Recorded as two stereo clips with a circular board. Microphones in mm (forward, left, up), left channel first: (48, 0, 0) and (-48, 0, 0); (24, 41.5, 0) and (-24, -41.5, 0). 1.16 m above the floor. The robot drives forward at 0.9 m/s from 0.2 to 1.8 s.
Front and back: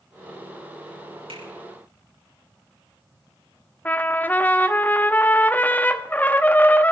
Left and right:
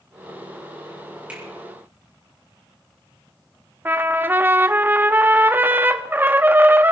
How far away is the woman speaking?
No woman speaking in this recording.